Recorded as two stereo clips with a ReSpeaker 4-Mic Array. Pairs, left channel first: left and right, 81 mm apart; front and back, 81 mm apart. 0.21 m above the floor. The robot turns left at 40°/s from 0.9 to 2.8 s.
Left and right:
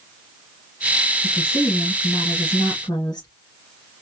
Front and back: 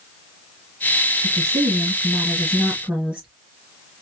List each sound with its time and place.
1.2 s a woman speaking: 165° left, 2.5 m; by 3.3 s 100° left, 2.5 m